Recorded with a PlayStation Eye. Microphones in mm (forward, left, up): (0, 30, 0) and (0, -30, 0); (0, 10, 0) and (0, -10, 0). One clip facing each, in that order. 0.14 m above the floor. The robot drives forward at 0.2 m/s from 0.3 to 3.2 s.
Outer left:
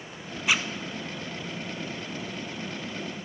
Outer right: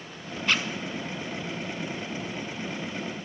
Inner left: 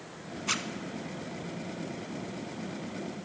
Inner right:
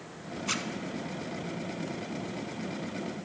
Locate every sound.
0.5 s a zipper: 10° left (ahead or behind), 0.5 m